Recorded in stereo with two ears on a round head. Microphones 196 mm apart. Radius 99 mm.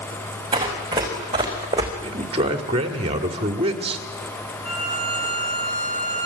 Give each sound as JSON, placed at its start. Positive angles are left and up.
{"t": 0.5, "sound": "running footsteps", "side_deg": -20, "distance_m": 4.0}
{"t": 2.0, "sound": "a man speaking", "side_deg": -25, "distance_m": 2.0}
{"t": 4.6, "sound": "a violin", "side_deg": 45, "distance_m": 7.0}